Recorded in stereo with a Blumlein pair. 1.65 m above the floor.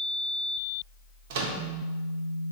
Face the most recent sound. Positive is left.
turn(degrees=-50)